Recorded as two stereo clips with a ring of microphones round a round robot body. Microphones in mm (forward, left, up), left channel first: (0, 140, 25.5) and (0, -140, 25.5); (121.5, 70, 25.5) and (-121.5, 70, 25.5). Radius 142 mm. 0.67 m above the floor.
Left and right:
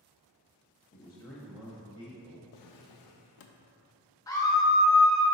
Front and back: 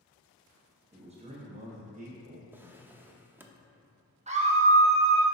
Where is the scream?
155° left, 0.9 m.